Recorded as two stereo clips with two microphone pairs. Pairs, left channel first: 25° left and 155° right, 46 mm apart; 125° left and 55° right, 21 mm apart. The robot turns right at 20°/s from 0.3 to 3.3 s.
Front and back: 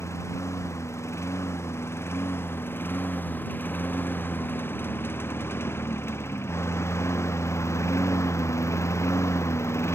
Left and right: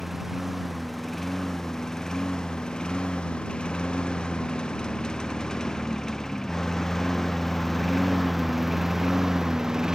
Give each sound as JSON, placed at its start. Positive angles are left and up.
{"t": 0.0, "sound": "a lawn mower", "azimuth_deg": 20}